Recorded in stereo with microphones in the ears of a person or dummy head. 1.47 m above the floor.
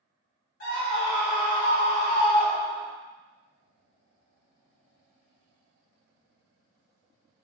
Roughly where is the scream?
Left.